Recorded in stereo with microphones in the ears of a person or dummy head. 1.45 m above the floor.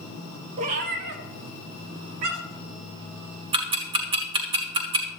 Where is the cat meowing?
40° right (ahead or behind), 0.9 m; by 2.6 s 60° right (ahead or behind), 2 m.